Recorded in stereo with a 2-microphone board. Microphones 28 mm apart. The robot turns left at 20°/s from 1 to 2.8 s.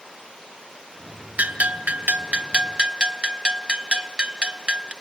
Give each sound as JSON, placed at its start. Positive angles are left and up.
{"t": 1.4, "sound": "a bell", "side_deg": -65, "distance_m": 0.5}